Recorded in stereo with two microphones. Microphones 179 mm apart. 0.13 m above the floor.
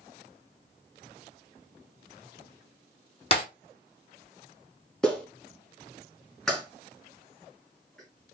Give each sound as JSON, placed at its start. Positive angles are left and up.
{"t": 3.3, "sound": "breaking glass", "side_deg": 35, "distance_m": 1.4}
{"t": 5.0, "sound": "a clap", "side_deg": 5, "distance_m": 1.3}